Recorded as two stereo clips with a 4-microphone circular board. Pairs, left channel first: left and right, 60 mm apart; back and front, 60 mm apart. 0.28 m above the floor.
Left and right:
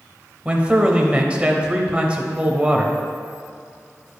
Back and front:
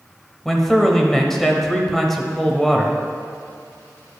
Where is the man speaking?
105° right, 0.9 m.